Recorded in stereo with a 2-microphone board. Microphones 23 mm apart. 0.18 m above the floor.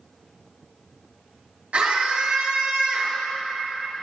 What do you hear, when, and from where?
1.7 s a scream: 60° right (ahead or behind), 2.5 m; by 3.2 s 55° right (ahead or behind), 2.5 m